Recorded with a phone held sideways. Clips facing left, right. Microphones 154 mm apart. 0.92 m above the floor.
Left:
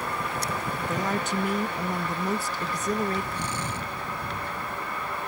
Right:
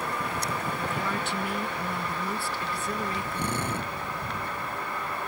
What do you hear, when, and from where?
0.9 s a woman speaking: 40° left (ahead or behind)
3.3 s a drill: 55° right (ahead or behind)